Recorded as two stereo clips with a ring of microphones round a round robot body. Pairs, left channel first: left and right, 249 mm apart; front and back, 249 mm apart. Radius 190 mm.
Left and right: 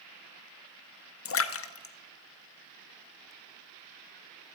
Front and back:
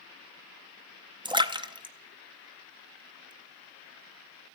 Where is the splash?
110° left, 0.8 m.